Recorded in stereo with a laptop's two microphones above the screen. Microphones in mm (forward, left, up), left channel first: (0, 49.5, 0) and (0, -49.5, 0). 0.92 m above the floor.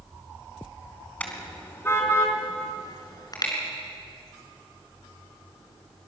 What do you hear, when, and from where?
1.2 s a car horn: 15° left (ahead or behind), 4 m; by 3.5 s 40° left (ahead or behind), 5.5 m